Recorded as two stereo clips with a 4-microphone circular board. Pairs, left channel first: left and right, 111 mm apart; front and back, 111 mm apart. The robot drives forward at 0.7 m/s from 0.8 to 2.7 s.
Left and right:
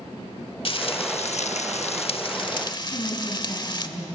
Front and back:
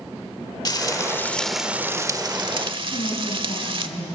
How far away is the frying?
About 0.9 m.